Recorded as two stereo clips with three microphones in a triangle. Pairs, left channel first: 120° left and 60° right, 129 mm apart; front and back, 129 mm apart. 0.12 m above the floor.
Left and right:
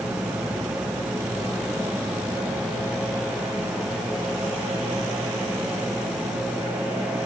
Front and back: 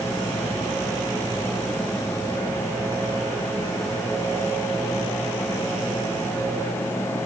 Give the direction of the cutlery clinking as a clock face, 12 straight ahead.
I don't hear cutlery clinking.